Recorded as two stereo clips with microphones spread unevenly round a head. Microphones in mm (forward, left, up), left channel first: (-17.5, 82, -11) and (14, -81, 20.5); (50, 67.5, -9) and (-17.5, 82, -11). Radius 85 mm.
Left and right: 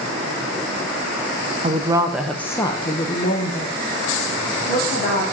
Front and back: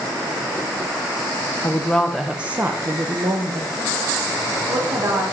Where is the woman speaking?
65° right, 0.8 m; by 5.2 s 140° left, 2 m.